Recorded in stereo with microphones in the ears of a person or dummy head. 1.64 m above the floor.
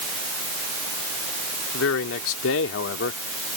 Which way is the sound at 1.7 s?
80° left.